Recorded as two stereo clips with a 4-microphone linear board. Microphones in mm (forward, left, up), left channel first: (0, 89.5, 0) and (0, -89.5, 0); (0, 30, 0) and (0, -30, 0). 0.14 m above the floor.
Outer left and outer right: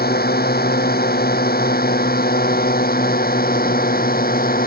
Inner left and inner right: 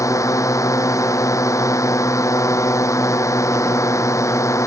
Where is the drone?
65° left (ahead or behind); by 4.7 s 60° left (ahead or behind).